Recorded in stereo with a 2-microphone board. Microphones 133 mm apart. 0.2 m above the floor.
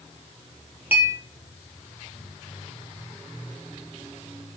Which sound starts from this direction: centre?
A clink, at 0.9 s.